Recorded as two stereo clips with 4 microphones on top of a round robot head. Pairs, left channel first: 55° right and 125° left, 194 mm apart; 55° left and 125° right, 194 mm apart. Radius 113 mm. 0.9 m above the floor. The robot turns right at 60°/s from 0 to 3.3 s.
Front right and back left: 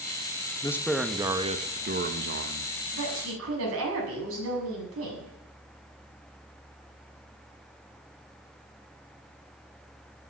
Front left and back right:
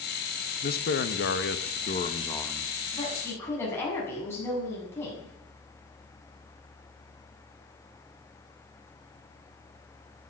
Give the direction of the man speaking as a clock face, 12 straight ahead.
11 o'clock.